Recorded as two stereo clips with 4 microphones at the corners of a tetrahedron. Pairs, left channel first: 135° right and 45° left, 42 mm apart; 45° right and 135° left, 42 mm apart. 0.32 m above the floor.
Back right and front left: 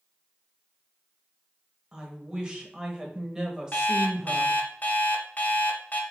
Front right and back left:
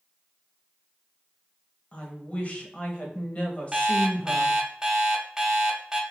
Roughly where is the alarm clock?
Behind right.